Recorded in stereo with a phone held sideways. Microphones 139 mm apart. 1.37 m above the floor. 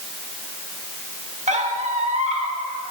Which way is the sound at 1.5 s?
55° right (ahead or behind).